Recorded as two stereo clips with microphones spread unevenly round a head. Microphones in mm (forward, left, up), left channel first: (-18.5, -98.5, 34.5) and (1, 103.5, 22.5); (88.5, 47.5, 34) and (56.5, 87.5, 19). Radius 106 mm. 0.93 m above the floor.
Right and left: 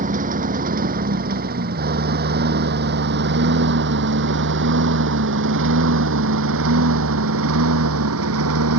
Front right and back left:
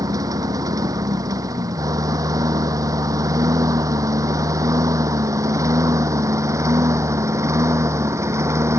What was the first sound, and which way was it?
A lawn mower, 135° left.